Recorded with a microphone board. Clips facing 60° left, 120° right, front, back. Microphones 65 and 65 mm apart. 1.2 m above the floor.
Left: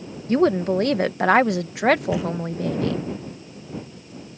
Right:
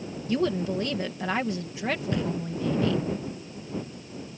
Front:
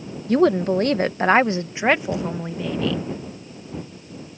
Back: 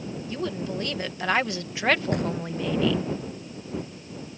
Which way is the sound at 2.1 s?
145° left.